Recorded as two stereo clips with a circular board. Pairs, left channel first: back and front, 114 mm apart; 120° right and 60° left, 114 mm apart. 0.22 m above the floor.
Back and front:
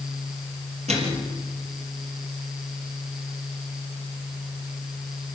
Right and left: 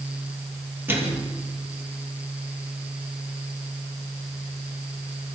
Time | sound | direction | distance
0.9 | a microwave | 10° right | 4.5 m